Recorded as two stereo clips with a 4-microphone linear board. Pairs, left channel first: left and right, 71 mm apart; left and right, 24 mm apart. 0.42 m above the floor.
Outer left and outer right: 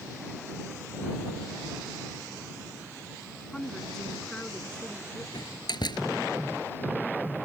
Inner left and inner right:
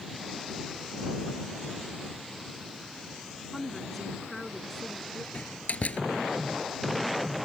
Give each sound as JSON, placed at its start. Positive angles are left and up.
{"t": 3.5, "sound": "a woman speaking", "side_deg": 10}
{"t": 5.3, "sound": "a door slam", "side_deg": 80}